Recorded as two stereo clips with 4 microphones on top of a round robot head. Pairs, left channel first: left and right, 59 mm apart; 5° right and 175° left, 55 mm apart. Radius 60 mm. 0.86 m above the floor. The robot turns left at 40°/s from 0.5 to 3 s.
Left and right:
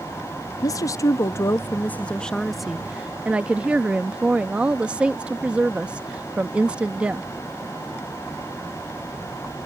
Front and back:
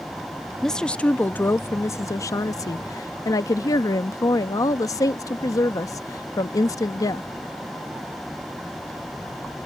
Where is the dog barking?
I don't hear a dog barking.